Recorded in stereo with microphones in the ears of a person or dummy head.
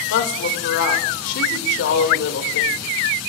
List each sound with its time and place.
0.1 s a woman speaking: 70° left (ahead or behind), 2 m